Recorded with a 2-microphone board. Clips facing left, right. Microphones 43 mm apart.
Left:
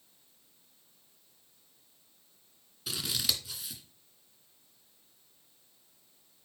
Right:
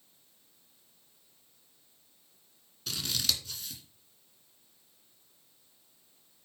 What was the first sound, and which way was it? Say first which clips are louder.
Scissors: even; 10° left (ahead or behind).